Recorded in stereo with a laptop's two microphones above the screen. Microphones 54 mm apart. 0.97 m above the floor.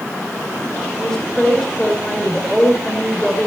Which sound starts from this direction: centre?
A woman speaking, at 1.0 s.